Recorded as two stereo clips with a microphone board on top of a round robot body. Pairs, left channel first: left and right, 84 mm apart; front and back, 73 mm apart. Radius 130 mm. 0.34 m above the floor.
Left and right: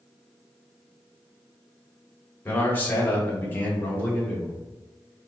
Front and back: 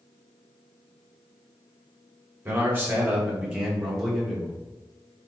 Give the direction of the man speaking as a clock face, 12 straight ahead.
7 o'clock.